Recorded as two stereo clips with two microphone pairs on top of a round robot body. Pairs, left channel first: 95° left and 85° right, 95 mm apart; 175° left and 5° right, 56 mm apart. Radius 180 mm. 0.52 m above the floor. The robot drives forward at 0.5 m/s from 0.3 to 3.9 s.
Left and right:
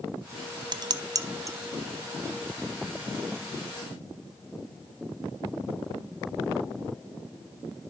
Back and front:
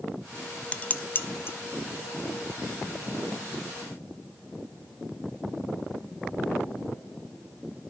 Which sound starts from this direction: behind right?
Dishes clattering, at 0.7 s.